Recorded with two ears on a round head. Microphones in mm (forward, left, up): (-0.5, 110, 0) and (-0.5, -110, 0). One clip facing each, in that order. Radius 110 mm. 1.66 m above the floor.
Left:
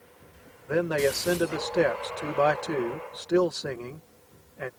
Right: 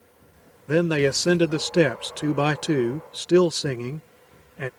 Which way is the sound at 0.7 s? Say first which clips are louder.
Right 4 dB; 45° right (ahead or behind).